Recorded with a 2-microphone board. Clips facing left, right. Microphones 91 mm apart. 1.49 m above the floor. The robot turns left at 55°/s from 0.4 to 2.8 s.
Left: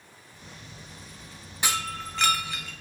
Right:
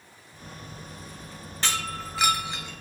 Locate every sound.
1.6 s breaking glass: 15° left, 1.0 m; by 2.7 s 45° right, 1.0 m